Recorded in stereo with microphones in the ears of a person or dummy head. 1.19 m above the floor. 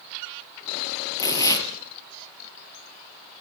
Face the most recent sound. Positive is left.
turn(degrees=20)  # may be behind; listen again after turning